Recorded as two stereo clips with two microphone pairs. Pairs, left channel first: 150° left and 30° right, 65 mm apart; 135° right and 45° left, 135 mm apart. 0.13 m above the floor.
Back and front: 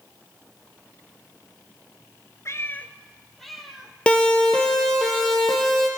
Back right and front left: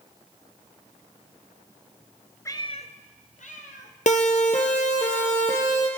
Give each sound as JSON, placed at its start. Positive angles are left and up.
{"t": 2.5, "sound": "a cat meowing", "azimuth_deg": 165, "distance_m": 0.8}
{"t": 4.1, "sound": "a siren", "azimuth_deg": -140, "distance_m": 2.5}